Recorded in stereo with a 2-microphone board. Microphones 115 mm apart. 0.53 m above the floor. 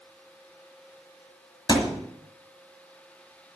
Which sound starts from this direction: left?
A thud, at 1.7 s.